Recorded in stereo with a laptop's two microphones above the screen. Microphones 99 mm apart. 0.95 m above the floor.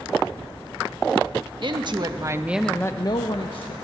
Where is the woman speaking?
55° right (ahead or behind), 1.4 m; by 3.7 s 65° left (ahead or behind), 1.4 m.